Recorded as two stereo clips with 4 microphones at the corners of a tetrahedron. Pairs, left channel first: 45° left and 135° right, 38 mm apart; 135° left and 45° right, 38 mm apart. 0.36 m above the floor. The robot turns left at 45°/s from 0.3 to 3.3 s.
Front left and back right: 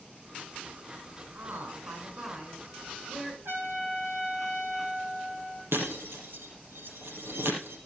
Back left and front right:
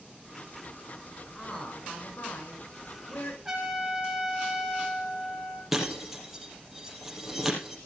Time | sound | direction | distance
1.4 | a woman speaking | 140° right | 5 m
3.5 | a trumpet | 120° right | 4.5 m
5.7 | breaking glass | 125° right | 4.5 m